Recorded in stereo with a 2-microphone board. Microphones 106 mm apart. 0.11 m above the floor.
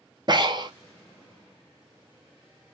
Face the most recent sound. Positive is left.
turn(degrees=-45)  # may be behind; listen again after turning